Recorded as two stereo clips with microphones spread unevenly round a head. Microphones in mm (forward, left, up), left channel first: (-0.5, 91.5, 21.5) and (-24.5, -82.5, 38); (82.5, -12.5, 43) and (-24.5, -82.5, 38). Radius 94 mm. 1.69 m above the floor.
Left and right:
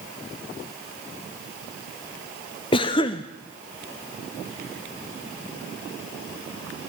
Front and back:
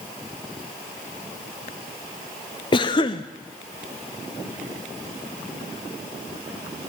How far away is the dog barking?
No dog barking in this recording.